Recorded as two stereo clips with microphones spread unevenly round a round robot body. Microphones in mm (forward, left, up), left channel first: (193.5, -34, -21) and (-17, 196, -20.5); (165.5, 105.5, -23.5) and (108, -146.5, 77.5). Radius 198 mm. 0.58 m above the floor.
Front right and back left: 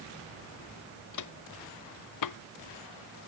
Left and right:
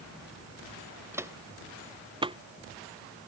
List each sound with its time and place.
1.1 s footsteps: 25° right; by 2.4 s 40° right